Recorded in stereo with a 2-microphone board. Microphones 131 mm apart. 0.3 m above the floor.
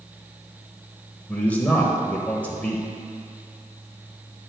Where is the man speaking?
10° left (ahead or behind), 1.0 m.